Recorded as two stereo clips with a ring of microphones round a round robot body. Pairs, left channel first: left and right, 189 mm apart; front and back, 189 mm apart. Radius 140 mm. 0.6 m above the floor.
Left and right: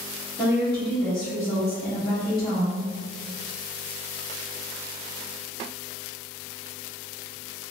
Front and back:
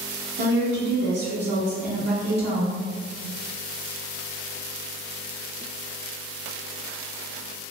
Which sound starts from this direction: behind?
A woman speaking, at 0.4 s.